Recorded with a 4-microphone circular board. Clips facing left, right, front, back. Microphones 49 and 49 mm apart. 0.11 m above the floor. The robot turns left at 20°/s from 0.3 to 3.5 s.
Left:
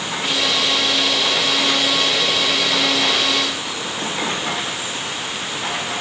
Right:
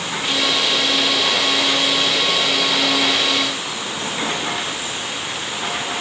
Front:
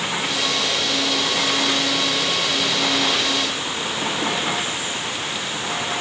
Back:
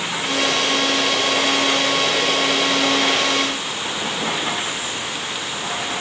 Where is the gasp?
No gasp in this recording.